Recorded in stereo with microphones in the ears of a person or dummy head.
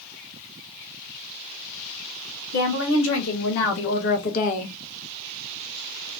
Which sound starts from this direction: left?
A woman speaking, at 2.5 s.